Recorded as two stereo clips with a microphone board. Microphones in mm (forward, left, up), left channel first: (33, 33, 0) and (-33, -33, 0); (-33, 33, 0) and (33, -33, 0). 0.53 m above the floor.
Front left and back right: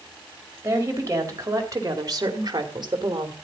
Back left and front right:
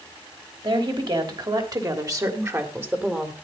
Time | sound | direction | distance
0.6 | a woman speaking | 75° right | 3 m